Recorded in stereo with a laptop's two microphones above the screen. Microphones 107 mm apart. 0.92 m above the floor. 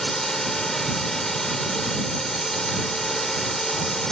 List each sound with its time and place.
0.0 s a drone: 5° left (ahead or behind)